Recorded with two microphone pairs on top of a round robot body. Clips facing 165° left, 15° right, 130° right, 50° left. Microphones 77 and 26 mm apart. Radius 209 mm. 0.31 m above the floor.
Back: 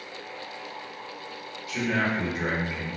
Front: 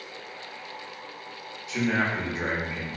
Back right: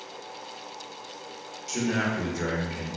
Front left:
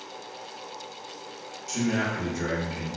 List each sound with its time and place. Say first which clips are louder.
1.7 s a man speaking: front 1 dB, even; 70° right, 1.2 m